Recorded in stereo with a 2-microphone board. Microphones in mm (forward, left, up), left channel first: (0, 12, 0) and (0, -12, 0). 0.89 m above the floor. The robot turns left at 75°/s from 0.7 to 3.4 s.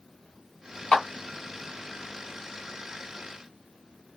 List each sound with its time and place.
0.9 s a clap: 45° left (ahead or behind), 2 m; by 1.1 s 35° left (ahead or behind), 2 m